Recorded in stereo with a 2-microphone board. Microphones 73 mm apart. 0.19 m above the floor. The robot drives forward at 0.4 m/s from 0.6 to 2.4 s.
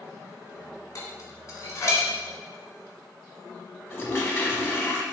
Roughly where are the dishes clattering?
Left.